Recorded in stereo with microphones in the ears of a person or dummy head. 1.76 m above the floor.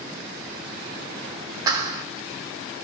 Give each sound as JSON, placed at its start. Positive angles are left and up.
{"t": 1.7, "sound": "a clap", "side_deg": -20, "distance_m": 1.0}